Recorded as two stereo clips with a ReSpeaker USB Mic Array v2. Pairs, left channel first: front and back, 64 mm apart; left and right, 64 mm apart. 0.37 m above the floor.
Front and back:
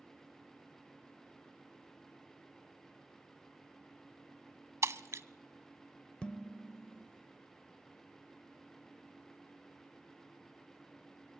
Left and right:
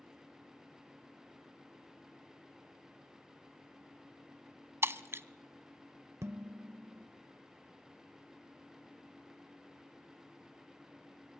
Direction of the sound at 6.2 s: 70° right.